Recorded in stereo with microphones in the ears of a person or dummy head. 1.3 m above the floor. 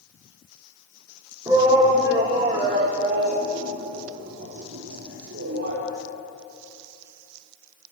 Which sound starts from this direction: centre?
A shout, at 1.5 s.